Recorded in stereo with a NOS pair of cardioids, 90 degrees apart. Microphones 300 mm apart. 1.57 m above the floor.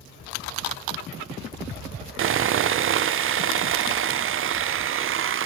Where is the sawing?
45° right, 0.5 m.